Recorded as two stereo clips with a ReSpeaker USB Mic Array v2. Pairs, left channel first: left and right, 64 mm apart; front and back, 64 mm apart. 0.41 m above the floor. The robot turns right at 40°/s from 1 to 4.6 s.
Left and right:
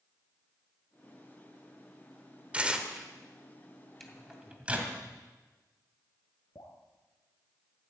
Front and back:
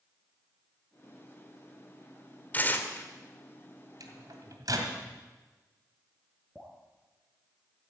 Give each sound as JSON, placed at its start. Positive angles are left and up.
{"t": 2.5, "sound": "tearing paper", "azimuth_deg": -35, "distance_m": 1.4}
{"t": 4.0, "sound": "a microwave", "azimuth_deg": 175, "distance_m": 2.0}
{"t": 6.5, "sound": "dripping", "azimuth_deg": 95, "distance_m": 3.0}